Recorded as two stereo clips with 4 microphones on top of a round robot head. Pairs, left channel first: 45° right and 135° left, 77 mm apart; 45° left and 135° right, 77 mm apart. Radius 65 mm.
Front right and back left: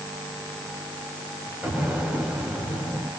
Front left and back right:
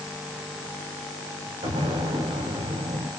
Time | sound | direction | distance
1.6 | an explosion | 145° right | 7 m